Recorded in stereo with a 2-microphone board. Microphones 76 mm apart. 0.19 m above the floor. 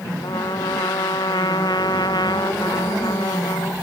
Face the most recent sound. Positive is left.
turn(degrees=70)  # may be behind; listen again after turning